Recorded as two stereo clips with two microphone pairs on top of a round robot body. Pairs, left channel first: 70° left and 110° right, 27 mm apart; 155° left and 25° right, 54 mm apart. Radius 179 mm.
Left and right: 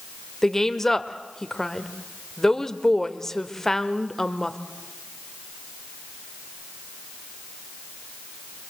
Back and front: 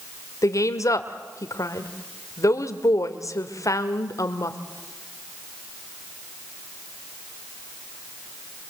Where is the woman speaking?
145° left, 2.0 m.